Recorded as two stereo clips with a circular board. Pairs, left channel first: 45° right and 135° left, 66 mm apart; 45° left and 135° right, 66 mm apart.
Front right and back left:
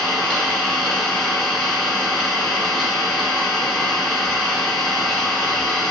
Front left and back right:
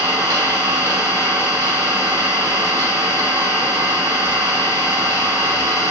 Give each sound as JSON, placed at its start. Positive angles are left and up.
{"t": 0.0, "sound": "an engine running", "azimuth_deg": -135, "distance_m": 1.4}